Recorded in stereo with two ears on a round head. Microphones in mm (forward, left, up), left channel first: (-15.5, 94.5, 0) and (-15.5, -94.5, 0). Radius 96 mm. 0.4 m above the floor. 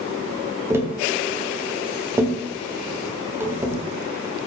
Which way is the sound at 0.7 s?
10° right (ahead or behind).